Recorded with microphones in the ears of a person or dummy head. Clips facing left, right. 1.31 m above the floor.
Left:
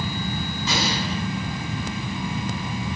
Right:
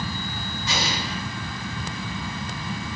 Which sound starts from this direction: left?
An explosion, at 0.7 s.